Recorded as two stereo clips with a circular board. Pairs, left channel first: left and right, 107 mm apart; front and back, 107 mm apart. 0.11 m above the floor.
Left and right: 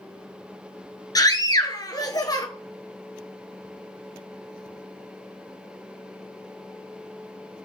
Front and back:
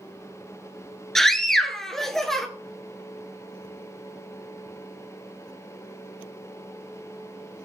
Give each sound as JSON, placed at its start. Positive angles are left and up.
{"t": 1.1, "sound": "a scream", "azimuth_deg": 85, "distance_m": 1.3}